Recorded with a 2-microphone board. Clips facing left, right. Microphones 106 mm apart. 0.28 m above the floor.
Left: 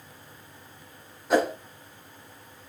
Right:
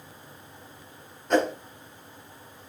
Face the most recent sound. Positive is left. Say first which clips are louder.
# even
turn(degrees=10)  # may be behind; listen again after turning